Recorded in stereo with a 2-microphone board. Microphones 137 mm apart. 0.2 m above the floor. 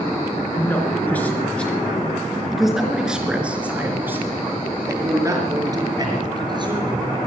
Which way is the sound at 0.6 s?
15° left (ahead or behind).